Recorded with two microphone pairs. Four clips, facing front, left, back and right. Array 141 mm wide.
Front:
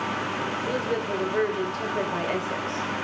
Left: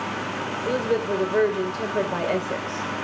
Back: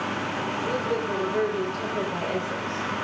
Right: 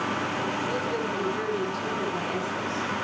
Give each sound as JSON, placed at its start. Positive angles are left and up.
{"t": 0.7, "sound": "a woman speaking", "azimuth_deg": 85, "distance_m": 5.0}